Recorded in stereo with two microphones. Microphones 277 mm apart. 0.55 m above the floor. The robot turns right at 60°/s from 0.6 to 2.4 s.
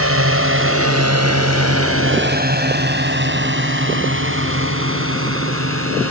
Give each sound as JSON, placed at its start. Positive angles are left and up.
{"t": 0.0, "sound": "a drone", "side_deg": -55}